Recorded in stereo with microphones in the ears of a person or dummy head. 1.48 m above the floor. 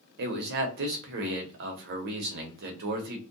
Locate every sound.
0.2 s a man speaking: 55° right (ahead or behind), 0.7 m